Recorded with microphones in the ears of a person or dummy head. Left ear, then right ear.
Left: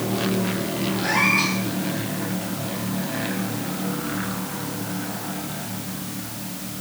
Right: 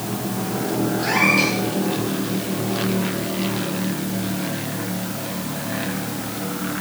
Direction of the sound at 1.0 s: 55° right (ahead or behind).